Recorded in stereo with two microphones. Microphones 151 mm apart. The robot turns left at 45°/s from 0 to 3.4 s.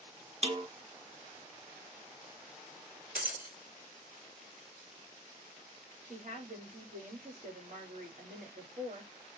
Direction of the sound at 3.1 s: 70° right (ahead or behind).